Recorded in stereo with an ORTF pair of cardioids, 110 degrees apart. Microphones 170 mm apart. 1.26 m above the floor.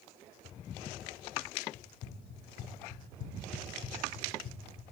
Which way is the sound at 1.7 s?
50° left.